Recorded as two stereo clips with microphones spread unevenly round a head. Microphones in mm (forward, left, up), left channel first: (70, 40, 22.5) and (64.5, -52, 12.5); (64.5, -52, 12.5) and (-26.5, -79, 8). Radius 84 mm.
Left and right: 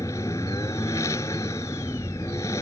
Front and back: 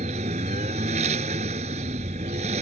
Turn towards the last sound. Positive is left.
turn(degrees=160)